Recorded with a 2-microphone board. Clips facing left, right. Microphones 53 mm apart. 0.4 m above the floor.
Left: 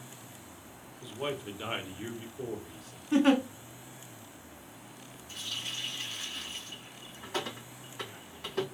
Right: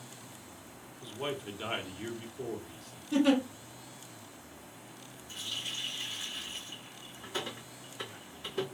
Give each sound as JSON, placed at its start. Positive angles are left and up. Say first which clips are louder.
{"t": 1.0, "sound": "a man speaking", "louder": "left 1 dB", "side_deg": 5, "distance_m": 0.8}
{"t": 3.1, "sound": "a giggle", "louder": "left 2 dB", "side_deg": 40, "distance_m": 0.8}
{"t": 5.3, "sound": "a running tap", "louder": "left 1 dB", "side_deg": 70, "distance_m": 1.9}